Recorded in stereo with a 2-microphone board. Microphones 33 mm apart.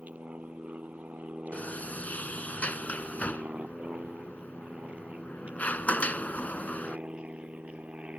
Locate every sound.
0.0 s an aircraft: 55° right (ahead or behind); by 8.2 s 45° right (ahead or behind)
1.5 s a sliding door: 55° left (ahead or behind)